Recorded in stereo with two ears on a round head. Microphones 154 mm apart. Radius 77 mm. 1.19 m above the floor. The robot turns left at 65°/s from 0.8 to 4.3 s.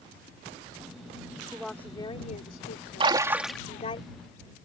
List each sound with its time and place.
1.5 s a woman speaking: 170° right; by 4.0 s 25° left
3.0 s a splash: 145° right; by 3.6 s 175° left